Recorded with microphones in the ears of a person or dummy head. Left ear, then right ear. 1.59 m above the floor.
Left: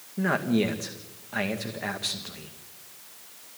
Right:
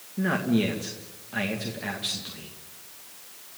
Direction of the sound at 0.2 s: 25° left (ahead or behind).